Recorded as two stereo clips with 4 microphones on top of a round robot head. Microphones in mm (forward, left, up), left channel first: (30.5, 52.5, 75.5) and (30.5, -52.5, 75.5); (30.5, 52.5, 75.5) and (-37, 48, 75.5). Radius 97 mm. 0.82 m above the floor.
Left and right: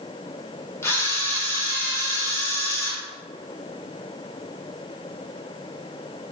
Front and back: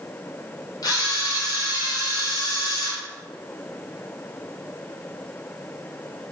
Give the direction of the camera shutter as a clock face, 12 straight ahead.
11 o'clock.